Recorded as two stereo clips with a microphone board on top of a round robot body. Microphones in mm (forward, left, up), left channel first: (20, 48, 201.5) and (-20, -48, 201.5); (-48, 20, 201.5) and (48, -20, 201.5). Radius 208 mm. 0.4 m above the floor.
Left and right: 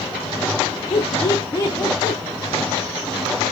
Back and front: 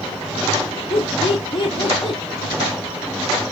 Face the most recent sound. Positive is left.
turn(degrees=125)